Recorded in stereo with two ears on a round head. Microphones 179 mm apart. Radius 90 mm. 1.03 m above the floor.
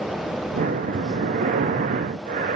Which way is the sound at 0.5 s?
35° right (ahead or behind).